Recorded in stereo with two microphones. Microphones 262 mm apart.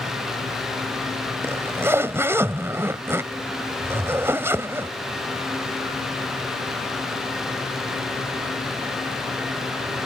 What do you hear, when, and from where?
1.4 s a zipper: 10° right (ahead or behind)